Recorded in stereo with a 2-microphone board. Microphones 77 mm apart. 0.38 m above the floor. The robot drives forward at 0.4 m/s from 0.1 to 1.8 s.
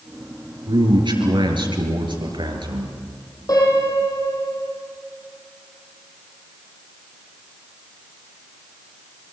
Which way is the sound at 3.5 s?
50° left (ahead or behind).